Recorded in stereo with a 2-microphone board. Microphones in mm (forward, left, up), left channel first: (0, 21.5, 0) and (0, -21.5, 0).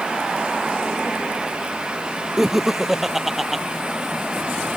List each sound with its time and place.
2.4 s laughter: 5° right (ahead or behind)